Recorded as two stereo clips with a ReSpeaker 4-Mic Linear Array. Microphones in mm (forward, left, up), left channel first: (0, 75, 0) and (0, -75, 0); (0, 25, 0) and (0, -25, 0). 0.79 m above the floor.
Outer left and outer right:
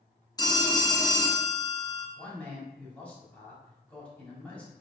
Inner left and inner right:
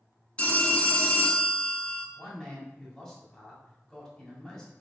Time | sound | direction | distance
0.4 | a phone ringing | 25° left (ahead or behind) | 0.8 m
2.2 | a man speaking | 10° left (ahead or behind) | 1.7 m